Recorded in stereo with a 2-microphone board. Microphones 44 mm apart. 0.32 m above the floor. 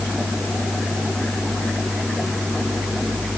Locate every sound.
Only background noise.